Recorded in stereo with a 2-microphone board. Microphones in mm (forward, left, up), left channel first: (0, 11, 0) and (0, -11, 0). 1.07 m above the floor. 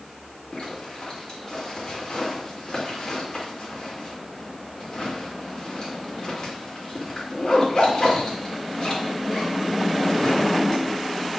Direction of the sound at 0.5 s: 45° left (ahead or behind).